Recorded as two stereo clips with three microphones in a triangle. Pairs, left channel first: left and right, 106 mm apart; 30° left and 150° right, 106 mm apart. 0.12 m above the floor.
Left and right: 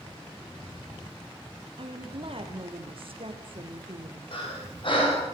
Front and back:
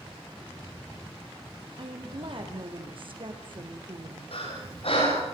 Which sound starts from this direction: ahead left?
Breathing, at 4.3 s.